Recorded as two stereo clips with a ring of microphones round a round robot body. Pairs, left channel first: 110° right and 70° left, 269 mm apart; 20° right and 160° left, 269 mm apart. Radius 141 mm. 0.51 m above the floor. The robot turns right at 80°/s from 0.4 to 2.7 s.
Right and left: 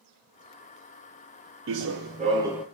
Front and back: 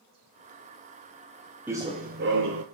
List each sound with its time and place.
1.7 s running footsteps: 75° left, 0.6 m; by 2.6 s 155° left, 0.6 m